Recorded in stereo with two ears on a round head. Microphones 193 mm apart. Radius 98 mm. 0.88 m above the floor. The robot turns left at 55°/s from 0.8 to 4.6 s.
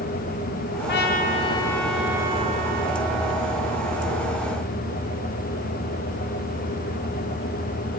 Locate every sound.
0.9 s a trumpet: 60° left, 1.7 m; by 4.4 s 135° right, 1.7 m